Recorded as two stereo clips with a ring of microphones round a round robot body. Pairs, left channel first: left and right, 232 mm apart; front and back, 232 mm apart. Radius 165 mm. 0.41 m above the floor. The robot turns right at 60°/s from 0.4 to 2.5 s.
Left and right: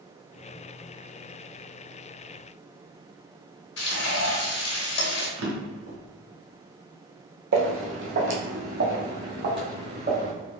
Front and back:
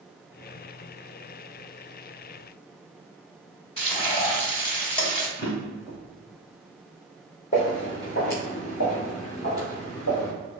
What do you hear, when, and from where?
3.8 s frying: 65° left, 1.5 m
5.4 s a drawer: 75° right, 1.4 m
7.5 s footsteps: 65° right, 0.9 m; by 10.3 s 55° right, 3 m